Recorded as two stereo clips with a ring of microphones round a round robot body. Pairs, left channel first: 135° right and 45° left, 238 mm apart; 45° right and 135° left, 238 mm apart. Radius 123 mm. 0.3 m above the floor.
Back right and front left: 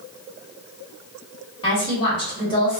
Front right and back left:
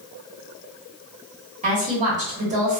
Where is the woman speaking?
170° left, 1.4 m.